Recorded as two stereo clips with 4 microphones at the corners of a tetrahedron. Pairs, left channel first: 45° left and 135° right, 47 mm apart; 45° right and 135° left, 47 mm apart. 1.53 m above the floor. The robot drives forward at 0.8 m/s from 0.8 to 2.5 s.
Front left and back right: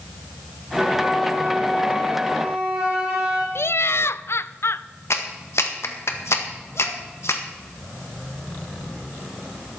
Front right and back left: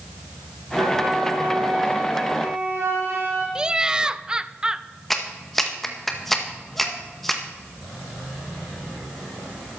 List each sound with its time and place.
0.8 s a flute: 145° left, 4 m; by 3.5 s 155° left, 5 m
3.5 s laughter: 60° left, 0.5 m
5.1 s a clap: 40° left, 1.6 m